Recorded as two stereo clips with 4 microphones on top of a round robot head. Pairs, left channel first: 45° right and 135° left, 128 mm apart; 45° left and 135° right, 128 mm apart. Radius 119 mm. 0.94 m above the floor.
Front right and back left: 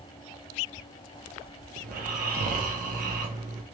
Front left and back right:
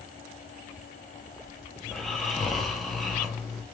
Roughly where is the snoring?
Behind left.